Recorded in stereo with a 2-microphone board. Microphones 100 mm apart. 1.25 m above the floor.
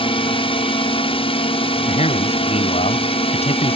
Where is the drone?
60° left (ahead or behind).